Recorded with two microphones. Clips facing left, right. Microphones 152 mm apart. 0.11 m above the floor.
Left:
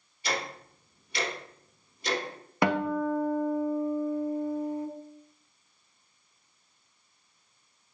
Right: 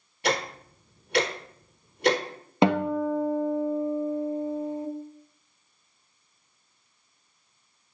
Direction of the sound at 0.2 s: 65° right (ahead or behind).